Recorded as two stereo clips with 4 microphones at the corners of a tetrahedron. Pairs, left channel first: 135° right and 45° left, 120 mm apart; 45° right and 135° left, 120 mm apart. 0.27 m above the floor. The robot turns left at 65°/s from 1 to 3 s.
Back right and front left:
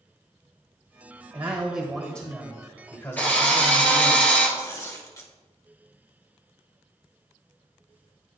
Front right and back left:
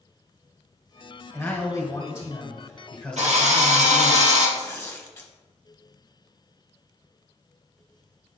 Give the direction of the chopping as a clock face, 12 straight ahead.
No chopping in this recording.